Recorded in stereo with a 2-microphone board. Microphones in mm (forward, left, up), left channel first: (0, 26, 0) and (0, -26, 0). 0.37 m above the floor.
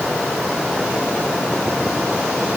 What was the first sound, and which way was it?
Only background noise.